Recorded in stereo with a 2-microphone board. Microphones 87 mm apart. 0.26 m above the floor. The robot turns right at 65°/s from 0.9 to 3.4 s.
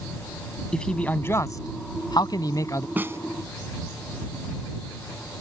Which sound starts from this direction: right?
A snare drum, at 3.0 s.